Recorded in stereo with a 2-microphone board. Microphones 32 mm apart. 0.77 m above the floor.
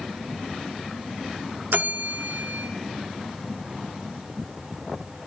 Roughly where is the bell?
Right.